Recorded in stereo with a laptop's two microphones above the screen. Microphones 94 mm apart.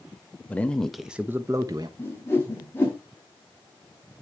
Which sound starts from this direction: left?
A whoosh, at 2.0 s.